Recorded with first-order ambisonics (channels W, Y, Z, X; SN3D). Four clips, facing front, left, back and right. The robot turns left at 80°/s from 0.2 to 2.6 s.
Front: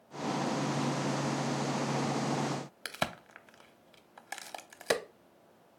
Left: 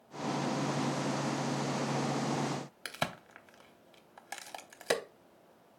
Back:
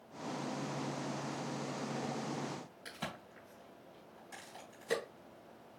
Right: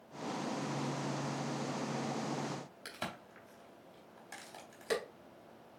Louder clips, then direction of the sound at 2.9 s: Left 7 dB, front 9 dB; 30° left.